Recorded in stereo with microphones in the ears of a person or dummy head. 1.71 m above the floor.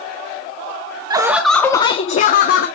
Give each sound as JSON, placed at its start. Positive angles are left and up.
{"t": 1.1, "sound": "laughter", "side_deg": -30, "distance_m": 0.6}